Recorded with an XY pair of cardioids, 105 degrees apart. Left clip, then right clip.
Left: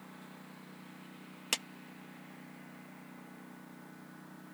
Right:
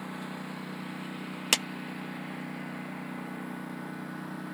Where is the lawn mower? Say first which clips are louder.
Right 13 dB; 70° right.